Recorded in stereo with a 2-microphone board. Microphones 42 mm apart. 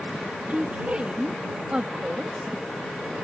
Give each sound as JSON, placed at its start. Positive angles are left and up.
{"t": 0.5, "sound": "a woman speaking", "side_deg": -35}